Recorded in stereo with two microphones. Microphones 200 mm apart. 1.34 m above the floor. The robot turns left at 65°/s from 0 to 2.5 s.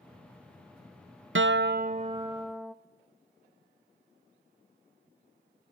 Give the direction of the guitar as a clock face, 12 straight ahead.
3 o'clock.